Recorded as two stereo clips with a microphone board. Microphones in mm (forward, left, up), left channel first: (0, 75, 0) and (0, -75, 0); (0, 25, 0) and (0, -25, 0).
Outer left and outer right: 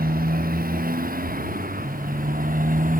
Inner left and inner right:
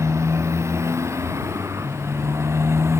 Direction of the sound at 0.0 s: 75° right (ahead or behind).